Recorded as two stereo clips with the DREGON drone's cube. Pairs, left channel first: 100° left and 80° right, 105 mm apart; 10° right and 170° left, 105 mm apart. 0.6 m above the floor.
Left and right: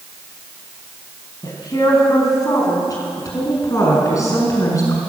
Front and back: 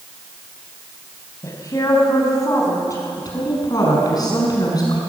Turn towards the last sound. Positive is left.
turn(degrees=40)